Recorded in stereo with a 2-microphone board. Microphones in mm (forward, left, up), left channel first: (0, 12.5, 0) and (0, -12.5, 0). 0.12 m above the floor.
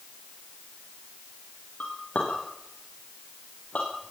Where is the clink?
55° left (ahead or behind), 8.5 m.